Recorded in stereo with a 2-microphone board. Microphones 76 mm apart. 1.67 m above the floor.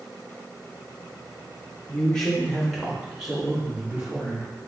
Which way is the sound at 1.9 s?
15° left (ahead or behind).